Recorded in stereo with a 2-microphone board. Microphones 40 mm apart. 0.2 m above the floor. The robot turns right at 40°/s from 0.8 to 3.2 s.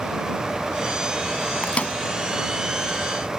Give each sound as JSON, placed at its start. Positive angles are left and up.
{"t": 1.6, "sound": "a microwave", "side_deg": 35}